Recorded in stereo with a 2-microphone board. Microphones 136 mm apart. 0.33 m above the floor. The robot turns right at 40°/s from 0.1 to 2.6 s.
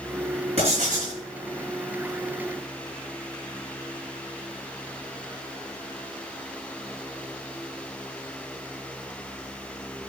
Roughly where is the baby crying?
No baby crying in this recording.